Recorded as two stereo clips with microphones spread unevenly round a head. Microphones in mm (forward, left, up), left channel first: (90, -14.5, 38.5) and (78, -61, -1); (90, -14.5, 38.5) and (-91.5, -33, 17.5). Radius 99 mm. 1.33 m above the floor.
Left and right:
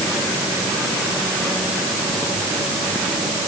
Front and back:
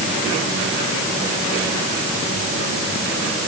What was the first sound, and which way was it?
Only background noise.